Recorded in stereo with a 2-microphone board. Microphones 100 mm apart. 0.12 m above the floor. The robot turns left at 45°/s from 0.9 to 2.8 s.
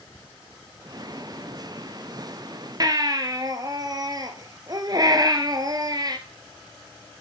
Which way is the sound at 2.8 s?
40° right (ahead or behind).